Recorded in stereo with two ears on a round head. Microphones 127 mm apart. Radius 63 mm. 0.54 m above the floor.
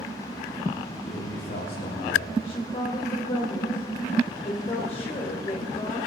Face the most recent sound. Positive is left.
turn(degrees=40)  # may be behind; listen again after turning